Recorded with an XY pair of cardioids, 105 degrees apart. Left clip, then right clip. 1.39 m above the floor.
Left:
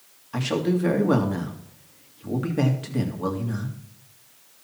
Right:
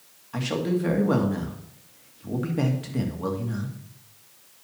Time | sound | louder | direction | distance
0.3 | a man speaking | left 2 dB | 15° left | 2 m